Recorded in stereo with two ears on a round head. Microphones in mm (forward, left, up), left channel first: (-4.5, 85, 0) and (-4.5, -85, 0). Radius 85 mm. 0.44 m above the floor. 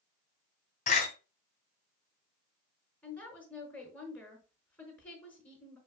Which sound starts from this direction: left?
A door slam, at 0.9 s.